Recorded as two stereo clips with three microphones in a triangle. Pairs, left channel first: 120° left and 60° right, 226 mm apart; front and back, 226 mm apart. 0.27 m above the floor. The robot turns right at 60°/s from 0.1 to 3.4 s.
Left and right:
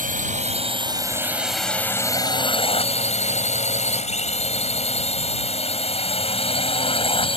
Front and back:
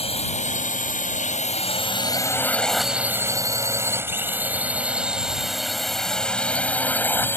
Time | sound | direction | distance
0.0 | a drone | 45° right | ?